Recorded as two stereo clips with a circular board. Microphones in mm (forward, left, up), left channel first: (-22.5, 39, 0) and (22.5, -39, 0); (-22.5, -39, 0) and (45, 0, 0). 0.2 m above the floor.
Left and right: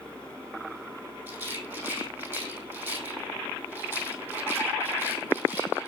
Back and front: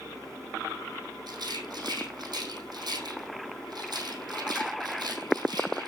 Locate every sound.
1.3 s a rattle: 5° left, 3.5 m